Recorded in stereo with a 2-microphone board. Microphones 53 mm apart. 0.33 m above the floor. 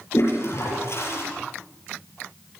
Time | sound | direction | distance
0.1 | a toilet flushing | 60° left (ahead or behind) | 6.5 m